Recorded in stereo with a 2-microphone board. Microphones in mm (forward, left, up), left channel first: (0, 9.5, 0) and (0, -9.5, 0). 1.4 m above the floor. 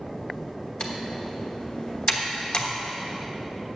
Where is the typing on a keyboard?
50° left (ahead or behind), 1.2 m.